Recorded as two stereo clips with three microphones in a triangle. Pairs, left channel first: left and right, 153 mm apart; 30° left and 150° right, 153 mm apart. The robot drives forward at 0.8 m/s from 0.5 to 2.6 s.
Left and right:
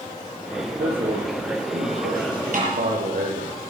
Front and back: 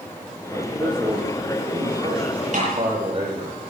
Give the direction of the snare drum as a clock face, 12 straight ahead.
4 o'clock.